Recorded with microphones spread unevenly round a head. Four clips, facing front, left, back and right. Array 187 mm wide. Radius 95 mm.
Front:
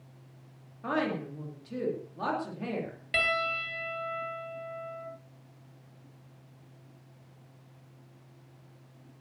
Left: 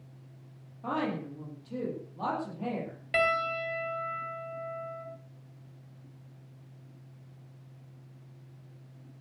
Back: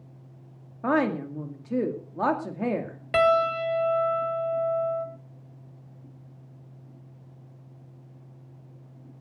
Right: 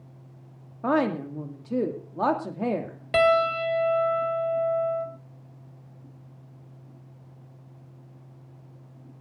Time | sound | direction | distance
0.8 | a woman speaking | 115° right | 2.5 m
3.1 | a piano | 100° right | 1.6 m